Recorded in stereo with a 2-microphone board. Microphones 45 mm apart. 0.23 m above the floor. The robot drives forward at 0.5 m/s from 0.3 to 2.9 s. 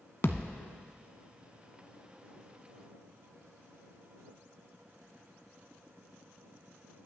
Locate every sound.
0.2 s a thud: 55° left (ahead or behind), 0.7 m; by 0.6 s 60° left (ahead or behind), 0.7 m